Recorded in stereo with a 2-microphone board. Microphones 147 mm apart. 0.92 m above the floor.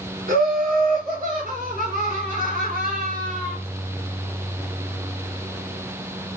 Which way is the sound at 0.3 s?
70° right (ahead or behind).